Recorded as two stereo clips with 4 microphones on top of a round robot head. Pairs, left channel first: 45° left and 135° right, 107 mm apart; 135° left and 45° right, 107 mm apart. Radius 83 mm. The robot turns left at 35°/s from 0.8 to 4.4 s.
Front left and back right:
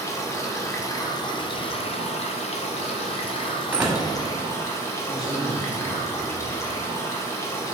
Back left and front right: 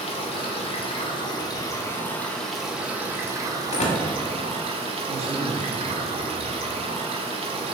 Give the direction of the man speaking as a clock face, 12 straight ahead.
1 o'clock.